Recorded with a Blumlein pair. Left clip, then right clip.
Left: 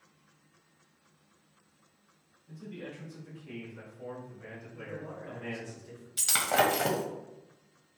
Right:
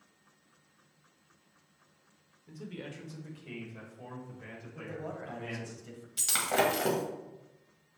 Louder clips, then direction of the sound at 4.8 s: Right 2 dB; 45° right.